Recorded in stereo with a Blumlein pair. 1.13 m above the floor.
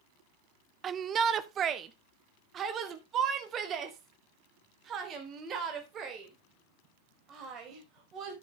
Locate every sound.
0.8 s a shout: 25° right, 0.7 m